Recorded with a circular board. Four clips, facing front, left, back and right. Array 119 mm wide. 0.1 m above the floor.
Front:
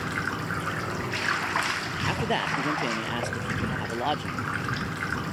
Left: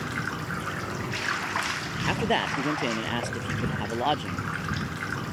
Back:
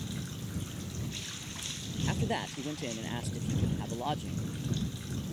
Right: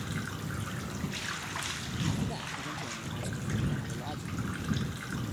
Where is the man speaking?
65° left.